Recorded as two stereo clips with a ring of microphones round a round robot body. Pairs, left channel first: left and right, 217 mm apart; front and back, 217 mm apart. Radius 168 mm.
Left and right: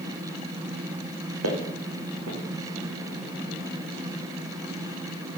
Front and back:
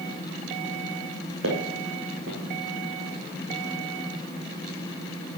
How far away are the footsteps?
About 3 m.